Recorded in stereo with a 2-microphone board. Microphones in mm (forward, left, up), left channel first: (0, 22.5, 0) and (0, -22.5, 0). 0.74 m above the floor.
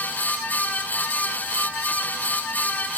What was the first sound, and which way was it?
Only background noise.